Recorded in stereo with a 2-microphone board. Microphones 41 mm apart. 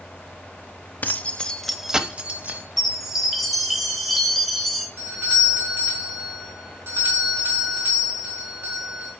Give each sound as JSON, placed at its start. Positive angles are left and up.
{"t": 1.0, "sound": "keys jangling", "side_deg": 45, "distance_m": 0.8}
{"t": 2.8, "sound": "a chime", "side_deg": -5, "distance_m": 1.5}
{"t": 5.0, "sound": "a doorbell", "side_deg": -65, "distance_m": 4.0}